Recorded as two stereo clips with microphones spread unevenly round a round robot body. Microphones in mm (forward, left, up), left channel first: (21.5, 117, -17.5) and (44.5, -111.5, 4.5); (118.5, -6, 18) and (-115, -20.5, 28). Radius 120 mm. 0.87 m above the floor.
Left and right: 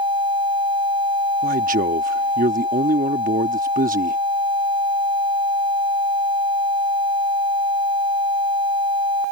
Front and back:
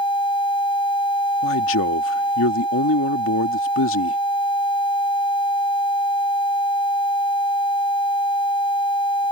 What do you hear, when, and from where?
1.4 s a man speaking: 30° right